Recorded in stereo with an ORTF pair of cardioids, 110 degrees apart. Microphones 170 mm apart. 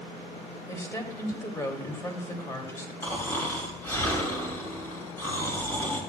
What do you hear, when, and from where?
0.7 s a woman speaking: 15° left, 2.5 m
3.0 s snoring: 15° left, 2.5 m